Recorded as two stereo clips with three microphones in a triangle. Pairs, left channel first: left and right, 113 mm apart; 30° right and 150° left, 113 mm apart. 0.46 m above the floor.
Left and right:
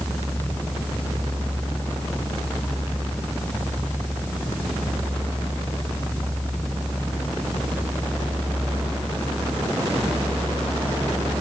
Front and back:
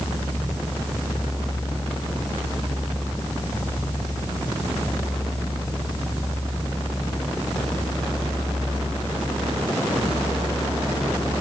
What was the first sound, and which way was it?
Only background noise.